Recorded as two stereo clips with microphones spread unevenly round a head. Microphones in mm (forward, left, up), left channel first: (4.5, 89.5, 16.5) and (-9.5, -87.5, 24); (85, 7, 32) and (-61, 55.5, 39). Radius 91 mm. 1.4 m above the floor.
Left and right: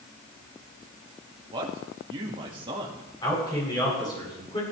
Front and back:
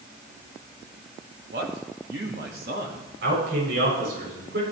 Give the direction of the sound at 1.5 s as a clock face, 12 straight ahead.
5 o'clock.